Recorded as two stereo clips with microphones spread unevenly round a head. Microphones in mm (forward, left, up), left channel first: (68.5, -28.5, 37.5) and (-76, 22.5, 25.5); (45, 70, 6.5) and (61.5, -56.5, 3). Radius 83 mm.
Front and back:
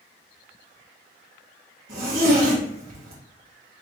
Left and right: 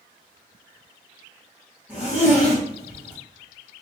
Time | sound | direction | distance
1.9 | a zipper | 165° right | 1.8 m